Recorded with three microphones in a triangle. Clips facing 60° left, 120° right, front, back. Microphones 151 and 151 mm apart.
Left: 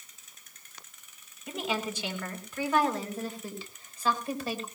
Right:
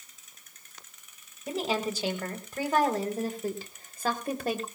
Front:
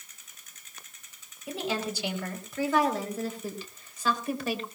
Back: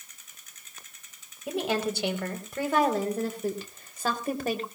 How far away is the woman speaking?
About 3.5 m.